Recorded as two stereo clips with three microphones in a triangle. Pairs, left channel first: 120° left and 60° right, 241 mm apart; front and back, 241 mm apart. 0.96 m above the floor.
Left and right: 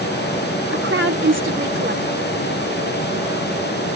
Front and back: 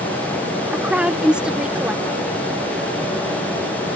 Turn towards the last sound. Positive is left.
turn(degrees=-95)